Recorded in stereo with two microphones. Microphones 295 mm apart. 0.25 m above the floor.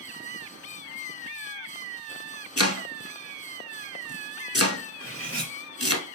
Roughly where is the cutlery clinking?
Right.